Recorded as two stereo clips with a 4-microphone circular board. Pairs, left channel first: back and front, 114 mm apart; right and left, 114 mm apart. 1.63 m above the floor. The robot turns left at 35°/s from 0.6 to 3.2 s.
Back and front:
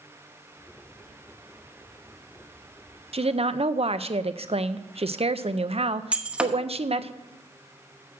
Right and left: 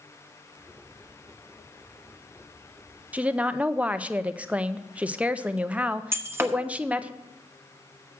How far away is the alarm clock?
No alarm clock in this recording.